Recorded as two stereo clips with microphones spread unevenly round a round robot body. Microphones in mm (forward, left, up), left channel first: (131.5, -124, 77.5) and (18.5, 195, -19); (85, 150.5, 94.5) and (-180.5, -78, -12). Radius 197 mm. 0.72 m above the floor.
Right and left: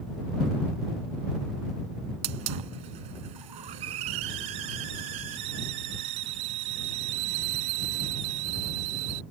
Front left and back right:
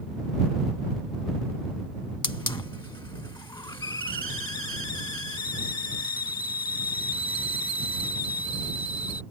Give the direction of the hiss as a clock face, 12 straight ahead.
8 o'clock.